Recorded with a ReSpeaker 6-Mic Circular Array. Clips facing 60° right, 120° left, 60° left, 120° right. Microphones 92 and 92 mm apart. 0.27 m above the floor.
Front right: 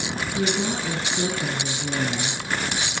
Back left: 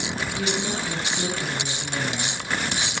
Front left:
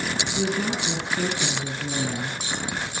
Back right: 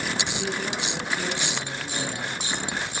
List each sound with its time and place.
0.3 s a woman speaking: 5° right, 7 m